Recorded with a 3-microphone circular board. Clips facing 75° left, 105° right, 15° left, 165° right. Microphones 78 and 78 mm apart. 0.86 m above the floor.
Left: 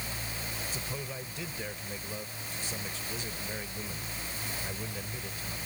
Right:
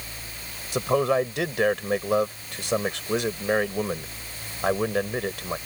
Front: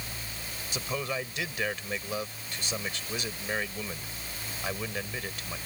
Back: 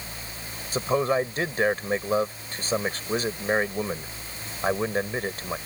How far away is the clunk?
No clunk in this recording.